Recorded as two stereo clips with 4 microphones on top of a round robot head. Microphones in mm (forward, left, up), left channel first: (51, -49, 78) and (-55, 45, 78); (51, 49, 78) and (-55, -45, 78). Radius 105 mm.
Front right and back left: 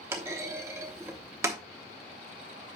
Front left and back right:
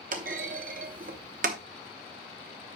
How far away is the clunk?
About 0.8 m.